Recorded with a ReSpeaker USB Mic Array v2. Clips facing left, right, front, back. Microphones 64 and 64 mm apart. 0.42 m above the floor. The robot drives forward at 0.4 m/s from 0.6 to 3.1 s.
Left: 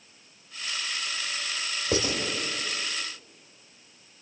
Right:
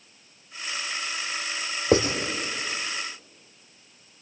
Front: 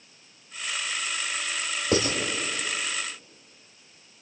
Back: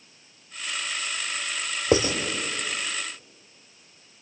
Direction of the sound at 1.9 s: 125° right.